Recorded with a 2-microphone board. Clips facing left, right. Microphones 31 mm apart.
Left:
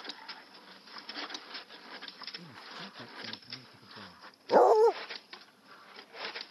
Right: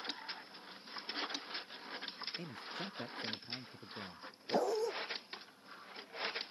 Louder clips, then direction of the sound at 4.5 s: Left 13 dB; 75° left (ahead or behind).